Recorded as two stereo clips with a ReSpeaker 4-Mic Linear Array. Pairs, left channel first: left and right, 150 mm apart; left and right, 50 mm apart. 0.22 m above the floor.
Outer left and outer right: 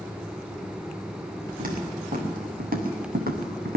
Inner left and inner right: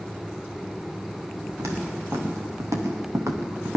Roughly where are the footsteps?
Right.